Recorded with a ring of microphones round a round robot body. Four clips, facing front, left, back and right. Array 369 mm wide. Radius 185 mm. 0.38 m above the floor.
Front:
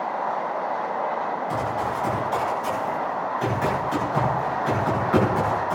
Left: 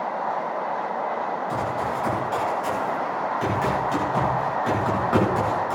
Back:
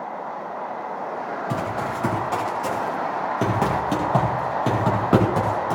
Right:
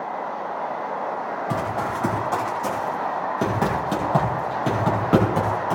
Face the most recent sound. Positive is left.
turn(degrees=-160)